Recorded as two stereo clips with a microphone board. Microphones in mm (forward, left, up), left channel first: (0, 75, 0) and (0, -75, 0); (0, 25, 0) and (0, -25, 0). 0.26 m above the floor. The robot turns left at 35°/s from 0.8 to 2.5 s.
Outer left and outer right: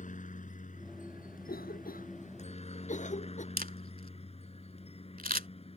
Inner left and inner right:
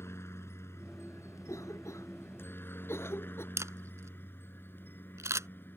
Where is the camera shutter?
80° right.